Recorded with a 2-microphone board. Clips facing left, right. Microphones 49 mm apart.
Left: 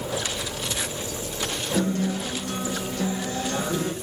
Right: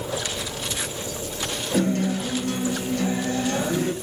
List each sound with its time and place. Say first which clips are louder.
1.7 s a guitar: right 3 dB; 40° right (ahead or behind), 2.5 m